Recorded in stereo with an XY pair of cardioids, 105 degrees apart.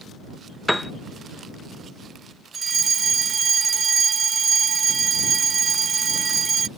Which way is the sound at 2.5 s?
40° right.